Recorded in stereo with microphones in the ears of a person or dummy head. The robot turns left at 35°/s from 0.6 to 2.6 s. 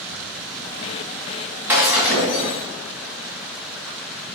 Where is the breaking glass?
165° right, 2.0 m; by 2.6 s 165° left, 2.0 m.